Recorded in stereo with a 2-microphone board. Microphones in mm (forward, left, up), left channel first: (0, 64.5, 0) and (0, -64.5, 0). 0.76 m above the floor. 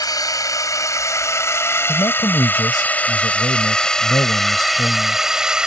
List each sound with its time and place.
0.0 s a drone: 30° left (ahead or behind); by 5.7 s 5° right (ahead or behind)
1.9 s a man speaking: 30° left (ahead or behind)